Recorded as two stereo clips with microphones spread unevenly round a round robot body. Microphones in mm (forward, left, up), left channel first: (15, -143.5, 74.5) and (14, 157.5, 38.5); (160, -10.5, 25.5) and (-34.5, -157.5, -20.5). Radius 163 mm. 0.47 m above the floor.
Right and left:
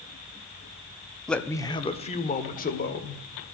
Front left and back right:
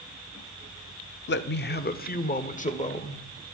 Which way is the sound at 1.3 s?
5° left.